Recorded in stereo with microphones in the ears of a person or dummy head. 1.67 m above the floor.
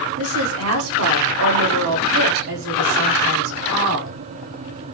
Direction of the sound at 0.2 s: 75° right (ahead or behind).